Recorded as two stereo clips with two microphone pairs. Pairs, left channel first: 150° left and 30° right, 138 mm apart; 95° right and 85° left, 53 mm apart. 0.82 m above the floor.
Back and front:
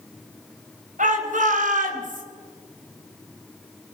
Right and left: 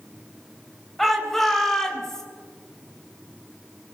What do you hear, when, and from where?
1.0 s a shout: 10° right, 4.5 m; by 2.2 s 15° right, 3.5 m